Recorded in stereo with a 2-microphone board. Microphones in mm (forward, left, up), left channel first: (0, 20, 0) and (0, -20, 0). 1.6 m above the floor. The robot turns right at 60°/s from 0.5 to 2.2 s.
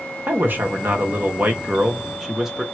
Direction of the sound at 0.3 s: 115° right.